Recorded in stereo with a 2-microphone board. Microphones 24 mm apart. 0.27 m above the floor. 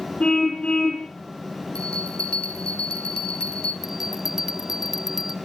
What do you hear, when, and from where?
0.2 s a car horn: 55° left (ahead or behind), 8.5 m
1.8 s a bell: 45° left (ahead or behind), 4 m
3.8 s a bell: 15° right (ahead or behind), 0.5 m